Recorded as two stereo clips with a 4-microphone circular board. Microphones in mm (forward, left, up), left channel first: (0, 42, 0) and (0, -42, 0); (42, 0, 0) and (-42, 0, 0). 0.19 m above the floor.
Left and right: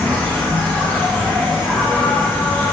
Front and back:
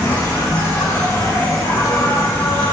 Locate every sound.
0.0 s an insect: 30° left, 1.3 m